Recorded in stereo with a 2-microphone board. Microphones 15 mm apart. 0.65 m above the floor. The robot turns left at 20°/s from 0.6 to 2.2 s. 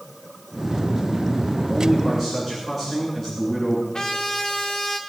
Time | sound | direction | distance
1.7 | a man speaking | 10° right (ahead or behind) | 9.5 m
3.9 | a trumpet | 50° left (ahead or behind) | 2 m